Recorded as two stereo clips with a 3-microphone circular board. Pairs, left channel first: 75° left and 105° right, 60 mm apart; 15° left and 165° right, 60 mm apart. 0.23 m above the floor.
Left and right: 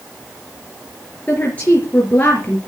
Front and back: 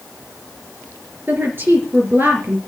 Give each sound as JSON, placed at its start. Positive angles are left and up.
{"t": 1.3, "sound": "a woman speaking", "azimuth_deg": 140, "distance_m": 4.0}